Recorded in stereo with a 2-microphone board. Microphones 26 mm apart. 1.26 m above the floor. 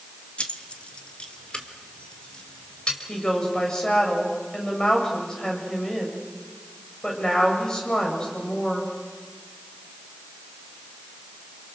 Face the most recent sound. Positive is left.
turn(degrees=25)  # may be behind; listen again after turning